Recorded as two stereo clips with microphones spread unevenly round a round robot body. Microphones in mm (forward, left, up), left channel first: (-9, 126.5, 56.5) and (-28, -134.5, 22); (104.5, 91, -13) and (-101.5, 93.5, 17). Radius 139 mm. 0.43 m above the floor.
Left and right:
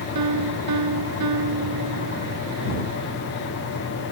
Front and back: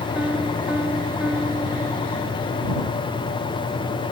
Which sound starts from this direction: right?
A piano, at 0.1 s.